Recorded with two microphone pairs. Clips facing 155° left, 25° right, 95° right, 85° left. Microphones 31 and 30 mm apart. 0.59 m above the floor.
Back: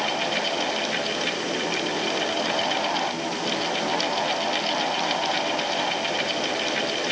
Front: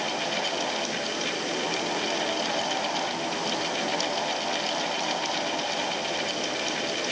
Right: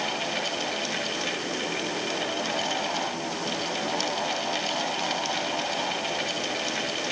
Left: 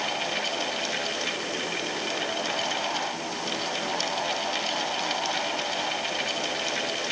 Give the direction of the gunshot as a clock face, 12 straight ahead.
I don't hear a gunshot.